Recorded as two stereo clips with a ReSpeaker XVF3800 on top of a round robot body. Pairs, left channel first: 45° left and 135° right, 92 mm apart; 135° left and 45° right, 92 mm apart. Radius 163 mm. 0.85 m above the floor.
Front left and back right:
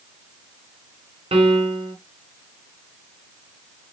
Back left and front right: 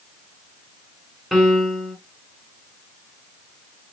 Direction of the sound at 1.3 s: 135° right.